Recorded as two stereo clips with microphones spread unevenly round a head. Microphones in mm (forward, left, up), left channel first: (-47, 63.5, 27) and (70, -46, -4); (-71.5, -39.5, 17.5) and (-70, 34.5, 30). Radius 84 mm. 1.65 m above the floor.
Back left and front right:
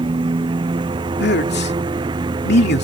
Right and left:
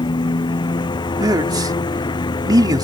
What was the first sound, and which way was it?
A lawn mower, 110° right.